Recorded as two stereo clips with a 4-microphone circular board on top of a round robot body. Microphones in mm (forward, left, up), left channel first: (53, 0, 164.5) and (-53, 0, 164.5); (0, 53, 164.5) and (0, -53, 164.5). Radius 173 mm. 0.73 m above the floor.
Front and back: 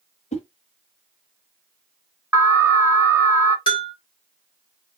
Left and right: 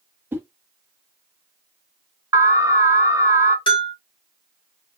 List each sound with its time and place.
0.3 s a whoosh: 15° right, 1.0 m
2.3 s an alarm: 130° right, 1.6 m
3.7 s a bell: 45° left, 0.7 m